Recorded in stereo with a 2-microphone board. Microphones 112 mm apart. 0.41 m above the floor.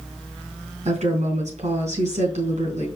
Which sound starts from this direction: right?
A woman speaking, at 0.8 s.